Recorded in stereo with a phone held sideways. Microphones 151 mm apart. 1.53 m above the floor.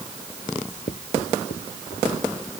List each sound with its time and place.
0.6 s writing: 60° left (ahead or behind)